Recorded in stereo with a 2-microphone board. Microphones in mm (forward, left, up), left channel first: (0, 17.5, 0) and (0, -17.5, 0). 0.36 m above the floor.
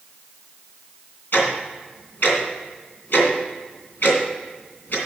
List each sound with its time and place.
1.3 s ticking: 70° left (ahead or behind), 2.5 m